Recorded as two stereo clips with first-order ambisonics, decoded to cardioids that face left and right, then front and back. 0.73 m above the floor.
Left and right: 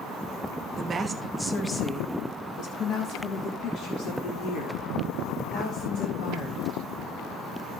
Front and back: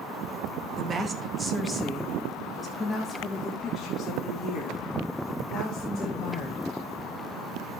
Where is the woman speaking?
130° right, 1.0 m; by 6.8 s 70° left, 3.5 m.